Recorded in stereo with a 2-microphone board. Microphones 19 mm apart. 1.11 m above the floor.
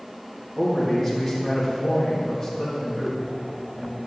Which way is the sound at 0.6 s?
10° left (ahead or behind).